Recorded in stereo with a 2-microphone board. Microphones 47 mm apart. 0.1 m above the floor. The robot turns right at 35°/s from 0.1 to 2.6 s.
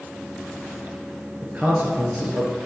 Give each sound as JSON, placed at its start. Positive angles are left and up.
{"t": 1.4, "sound": "a man speaking", "azimuth_deg": -115, "distance_m": 1.4}